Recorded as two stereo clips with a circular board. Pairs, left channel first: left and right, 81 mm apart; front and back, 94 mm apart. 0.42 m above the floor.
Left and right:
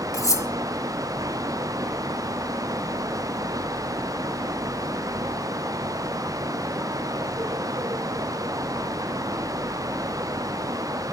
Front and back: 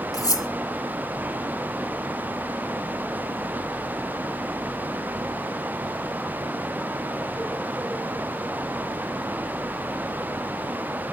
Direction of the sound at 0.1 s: 45° left.